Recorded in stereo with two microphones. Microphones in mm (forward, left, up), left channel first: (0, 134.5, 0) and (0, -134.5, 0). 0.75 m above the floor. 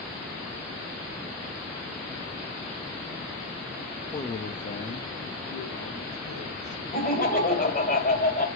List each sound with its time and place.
4.1 s a man speaking: 15° left (ahead or behind), 0.7 m; by 6.8 s 75° left (ahead or behind), 3 m
6.9 s laughter: 30° left (ahead or behind), 4 m